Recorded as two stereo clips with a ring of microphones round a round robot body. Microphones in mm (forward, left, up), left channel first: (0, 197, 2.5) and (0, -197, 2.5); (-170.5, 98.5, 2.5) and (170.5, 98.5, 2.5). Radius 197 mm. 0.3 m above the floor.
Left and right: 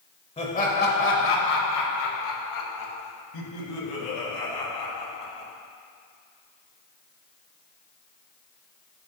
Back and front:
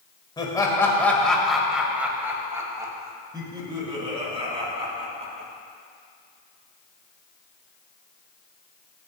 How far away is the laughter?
About 1.3 m.